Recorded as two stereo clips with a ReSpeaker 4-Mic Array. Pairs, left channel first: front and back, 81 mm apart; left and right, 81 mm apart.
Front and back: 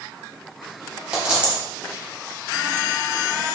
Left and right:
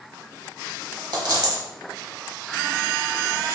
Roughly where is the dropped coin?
Right.